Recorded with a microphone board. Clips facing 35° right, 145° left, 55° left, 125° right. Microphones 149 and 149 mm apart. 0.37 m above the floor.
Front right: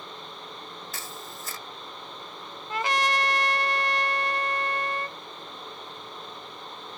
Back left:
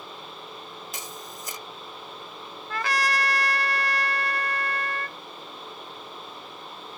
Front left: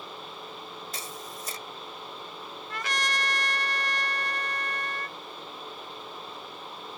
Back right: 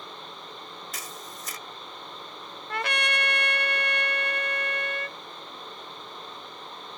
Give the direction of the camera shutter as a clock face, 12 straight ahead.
9 o'clock.